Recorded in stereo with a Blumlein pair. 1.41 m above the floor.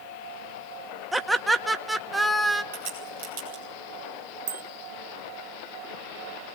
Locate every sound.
1.1 s laughter: 5° right, 1.6 m
2.7 s a crack: 55° right, 7.5 m
4.5 s a bicycle bell: 60° right, 2.5 m